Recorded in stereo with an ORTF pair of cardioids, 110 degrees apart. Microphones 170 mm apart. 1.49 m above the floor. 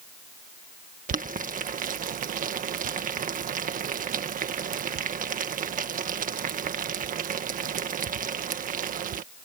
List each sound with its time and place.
1.1 s boiling: 50° right